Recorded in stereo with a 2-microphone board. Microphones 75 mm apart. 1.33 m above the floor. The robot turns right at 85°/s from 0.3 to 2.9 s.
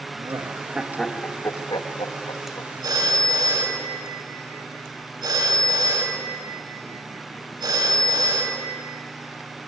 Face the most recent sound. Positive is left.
turn(degrees=-65)  # may be behind; listen again after turning